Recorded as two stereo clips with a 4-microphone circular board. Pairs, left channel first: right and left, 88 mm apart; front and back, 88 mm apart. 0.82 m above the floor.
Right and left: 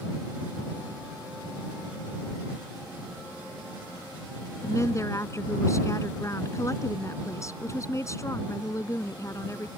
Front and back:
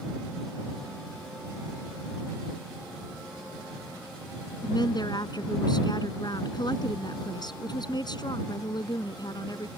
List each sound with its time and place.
4.6 s a woman speaking: 35° right